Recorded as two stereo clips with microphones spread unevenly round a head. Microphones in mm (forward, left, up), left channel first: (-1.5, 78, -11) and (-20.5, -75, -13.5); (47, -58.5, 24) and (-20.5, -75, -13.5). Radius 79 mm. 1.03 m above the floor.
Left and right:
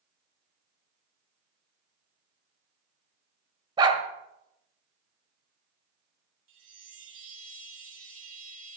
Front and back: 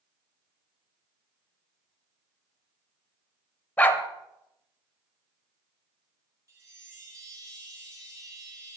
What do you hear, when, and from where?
3.8 s a dog barking: 35° right, 1.5 m
6.5 s a chime: 130° right, 4 m